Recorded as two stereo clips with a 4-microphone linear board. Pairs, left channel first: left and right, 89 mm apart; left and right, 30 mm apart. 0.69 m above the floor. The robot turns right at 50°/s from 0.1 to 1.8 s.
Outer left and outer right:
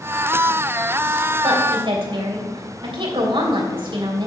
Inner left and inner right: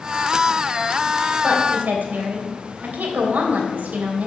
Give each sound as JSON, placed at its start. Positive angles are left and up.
{"t": 1.4, "sound": "a woman speaking", "side_deg": -75, "distance_m": 3.0}